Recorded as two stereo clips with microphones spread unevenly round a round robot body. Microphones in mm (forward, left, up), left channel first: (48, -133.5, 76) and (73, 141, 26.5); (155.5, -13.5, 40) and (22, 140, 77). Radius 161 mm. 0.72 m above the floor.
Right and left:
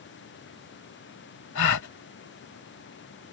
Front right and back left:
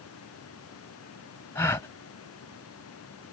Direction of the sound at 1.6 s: 130° right.